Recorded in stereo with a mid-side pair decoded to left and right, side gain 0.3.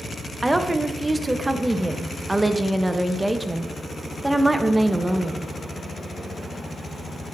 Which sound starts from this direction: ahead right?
A woman speaking, at 0.4 s.